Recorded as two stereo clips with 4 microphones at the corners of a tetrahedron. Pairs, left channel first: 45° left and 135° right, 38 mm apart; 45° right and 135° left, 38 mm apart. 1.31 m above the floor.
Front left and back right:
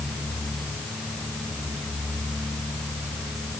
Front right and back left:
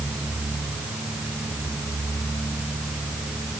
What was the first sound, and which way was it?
Only background noise.